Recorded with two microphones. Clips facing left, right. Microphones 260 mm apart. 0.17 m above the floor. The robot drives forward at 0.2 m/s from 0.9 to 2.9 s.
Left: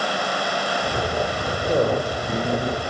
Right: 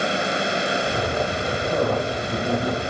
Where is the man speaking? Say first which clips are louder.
Left 3 dB; 65° left (ahead or behind), 3 m.